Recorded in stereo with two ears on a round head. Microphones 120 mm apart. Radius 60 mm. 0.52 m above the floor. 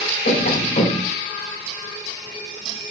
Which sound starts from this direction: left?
Tapping, at 0.2 s.